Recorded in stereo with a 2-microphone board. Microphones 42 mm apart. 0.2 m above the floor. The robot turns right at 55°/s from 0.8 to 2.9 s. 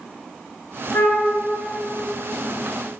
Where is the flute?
75° left (ahead or behind), 0.6 m; by 1.3 s 65° left (ahead or behind), 0.6 m.